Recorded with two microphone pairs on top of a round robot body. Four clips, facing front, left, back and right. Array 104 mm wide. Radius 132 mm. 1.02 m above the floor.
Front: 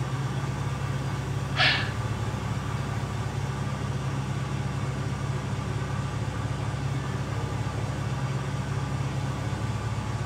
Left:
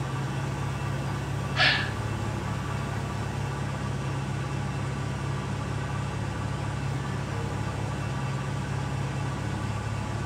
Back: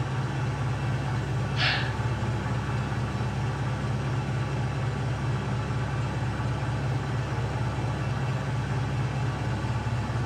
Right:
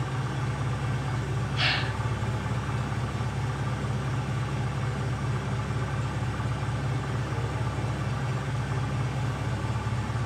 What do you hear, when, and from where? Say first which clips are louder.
0.0 s an engine running: even, back 1 dB; 150° right, 3.5 m
1.6 s a gasp: left 5 dB, front 4 dB; 50° left, 1.6 m